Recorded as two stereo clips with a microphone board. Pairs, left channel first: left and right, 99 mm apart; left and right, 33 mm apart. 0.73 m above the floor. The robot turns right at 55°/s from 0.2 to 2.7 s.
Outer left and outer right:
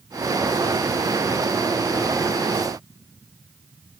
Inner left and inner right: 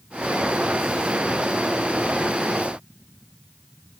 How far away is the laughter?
I don't hear laughter.